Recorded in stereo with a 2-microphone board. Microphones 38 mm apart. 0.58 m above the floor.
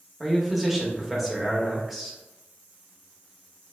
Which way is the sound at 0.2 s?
5° right (ahead or behind).